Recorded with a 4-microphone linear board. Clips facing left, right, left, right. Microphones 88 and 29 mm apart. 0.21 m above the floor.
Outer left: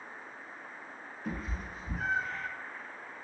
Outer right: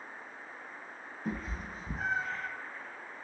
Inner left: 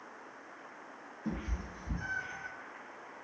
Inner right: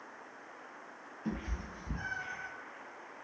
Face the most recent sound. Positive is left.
turn(degrees=-35)  # may be behind; listen again after turning